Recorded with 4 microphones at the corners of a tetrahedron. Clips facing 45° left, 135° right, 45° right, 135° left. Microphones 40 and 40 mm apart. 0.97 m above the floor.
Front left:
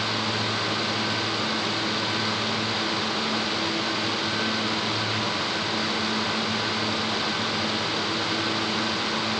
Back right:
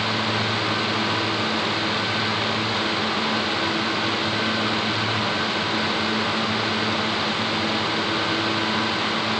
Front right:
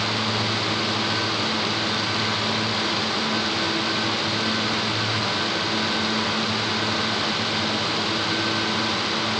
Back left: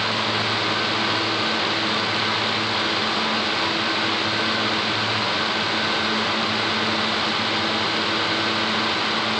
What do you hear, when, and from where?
Only background noise.